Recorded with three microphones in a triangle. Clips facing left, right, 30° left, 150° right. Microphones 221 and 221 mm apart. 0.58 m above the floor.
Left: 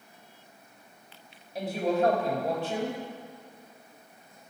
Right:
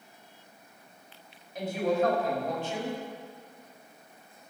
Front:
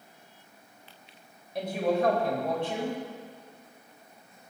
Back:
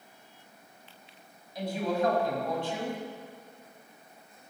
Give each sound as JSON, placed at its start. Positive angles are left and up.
{"t": 1.6, "sound": "a woman speaking", "azimuth_deg": 40, "distance_m": 3.0}